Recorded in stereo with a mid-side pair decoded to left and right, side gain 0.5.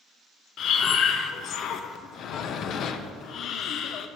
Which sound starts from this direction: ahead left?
Breathing, at 0.6 s.